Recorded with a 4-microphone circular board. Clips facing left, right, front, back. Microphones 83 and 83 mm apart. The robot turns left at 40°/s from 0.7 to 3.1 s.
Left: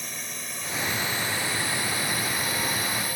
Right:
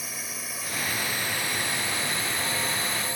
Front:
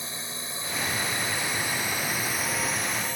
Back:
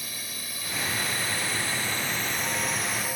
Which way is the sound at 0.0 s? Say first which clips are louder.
Even, front 3 dB; 10° right.